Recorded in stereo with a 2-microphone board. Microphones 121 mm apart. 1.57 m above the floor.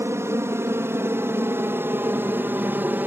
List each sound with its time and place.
0.0 s an aircraft: 25° right (ahead or behind); by 3.1 s 15° right (ahead or behind)